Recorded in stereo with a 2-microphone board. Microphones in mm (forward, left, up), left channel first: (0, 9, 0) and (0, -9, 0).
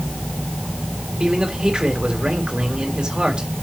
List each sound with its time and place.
1.2 s a man speaking: 60° right (ahead or behind), 4 m